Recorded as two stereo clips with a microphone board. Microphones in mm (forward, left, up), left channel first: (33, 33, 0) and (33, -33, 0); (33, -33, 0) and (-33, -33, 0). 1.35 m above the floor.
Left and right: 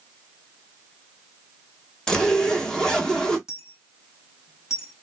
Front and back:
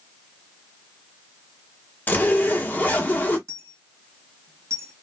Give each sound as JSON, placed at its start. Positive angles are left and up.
{"t": 2.1, "sound": "a zipper", "azimuth_deg": 25, "distance_m": 0.9}
{"t": 3.5, "sound": "a dropped coin", "azimuth_deg": -170, "distance_m": 2.0}